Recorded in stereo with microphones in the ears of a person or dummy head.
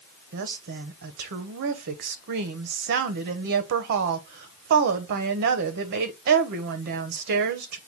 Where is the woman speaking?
55° right (ahead or behind), 0.7 m.